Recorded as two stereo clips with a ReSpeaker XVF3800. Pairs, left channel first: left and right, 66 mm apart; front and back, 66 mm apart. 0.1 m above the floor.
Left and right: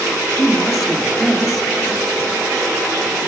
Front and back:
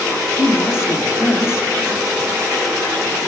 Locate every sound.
0.4 s a woman speaking: 5° left, 1.6 m